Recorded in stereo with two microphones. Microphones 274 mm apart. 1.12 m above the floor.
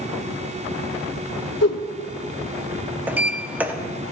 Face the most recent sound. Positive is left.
turn(degrees=-5)  # may be behind; listen again after turning